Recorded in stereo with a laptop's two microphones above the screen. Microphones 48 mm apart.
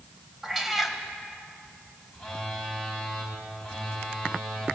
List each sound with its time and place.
0.4 s a cat meowing: 5° right (ahead or behind), 2.5 m
2.1 s a phone buzzing: 5° left (ahead or behind), 8.5 m